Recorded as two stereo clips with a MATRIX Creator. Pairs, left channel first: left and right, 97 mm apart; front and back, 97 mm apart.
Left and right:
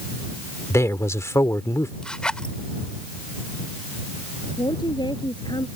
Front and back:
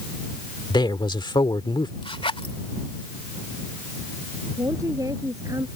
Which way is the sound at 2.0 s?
10° left.